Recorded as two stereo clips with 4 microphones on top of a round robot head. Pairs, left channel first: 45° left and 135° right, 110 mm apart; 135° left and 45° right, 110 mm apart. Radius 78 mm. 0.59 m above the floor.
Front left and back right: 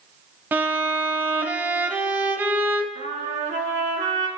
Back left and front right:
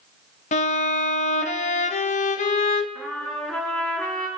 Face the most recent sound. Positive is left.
turn(degrees=-150)